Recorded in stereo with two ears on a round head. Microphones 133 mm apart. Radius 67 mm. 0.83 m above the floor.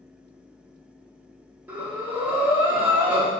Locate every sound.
1.7 s breathing: 10° right (ahead or behind), 1.2 m